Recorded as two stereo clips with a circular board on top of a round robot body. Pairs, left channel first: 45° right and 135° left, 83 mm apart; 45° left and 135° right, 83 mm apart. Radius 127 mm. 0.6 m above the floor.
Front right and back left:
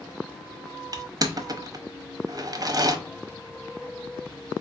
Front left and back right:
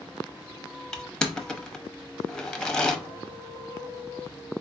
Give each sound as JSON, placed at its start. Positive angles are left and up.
{"t": 0.9, "sound": "crushing", "azimuth_deg": 125, "distance_m": 0.9}